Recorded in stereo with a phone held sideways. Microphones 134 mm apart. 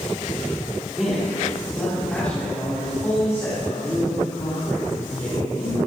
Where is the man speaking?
5° right (ahead or behind), 5 m; by 5.8 s 40° left (ahead or behind), 6.5 m.